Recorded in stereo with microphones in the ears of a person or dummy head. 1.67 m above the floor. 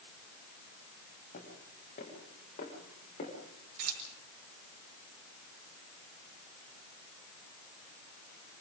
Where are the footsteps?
40° left (ahead or behind), 9.5 m; by 3.3 s 35° left (ahead or behind), 10 m.